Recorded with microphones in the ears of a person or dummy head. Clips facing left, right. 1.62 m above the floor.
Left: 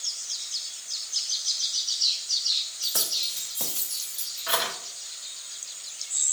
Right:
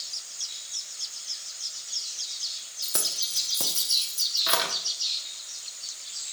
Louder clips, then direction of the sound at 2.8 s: Right 1 dB; 50° right (ahead or behind).